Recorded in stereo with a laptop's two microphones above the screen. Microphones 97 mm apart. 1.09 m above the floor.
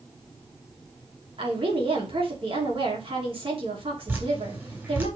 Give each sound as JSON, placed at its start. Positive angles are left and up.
{"t": 1.4, "sound": "a woman speaking", "side_deg": -70, "distance_m": 3.0}
{"t": 4.1, "sound": "dripping", "side_deg": -20, "distance_m": 1.7}